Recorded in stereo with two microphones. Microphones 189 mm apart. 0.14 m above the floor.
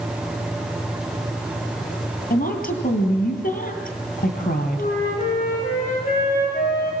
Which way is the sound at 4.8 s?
40° left (ahead or behind).